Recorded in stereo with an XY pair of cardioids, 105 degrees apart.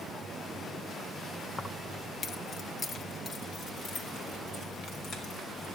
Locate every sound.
1.6 s keys jangling: 20° left, 0.8 m; by 5.7 s 65° left, 6 m